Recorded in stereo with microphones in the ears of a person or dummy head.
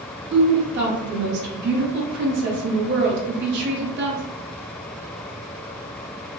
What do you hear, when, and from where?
0.3 s a woman speaking: 60° right (ahead or behind), 1.5 m